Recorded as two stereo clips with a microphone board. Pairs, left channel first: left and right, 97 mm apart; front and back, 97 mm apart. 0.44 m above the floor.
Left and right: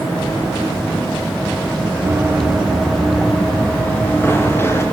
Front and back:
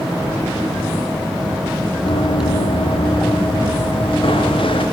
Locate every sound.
2.0 s running footsteps: 20° right, 2 m; by 4.8 s 25° left, 4.5 m